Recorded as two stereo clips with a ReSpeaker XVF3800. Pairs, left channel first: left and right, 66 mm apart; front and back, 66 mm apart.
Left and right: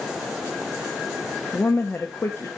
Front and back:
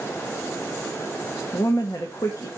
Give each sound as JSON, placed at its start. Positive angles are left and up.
{"t": 1.5, "sound": "a woman speaking", "azimuth_deg": 35, "distance_m": 0.9}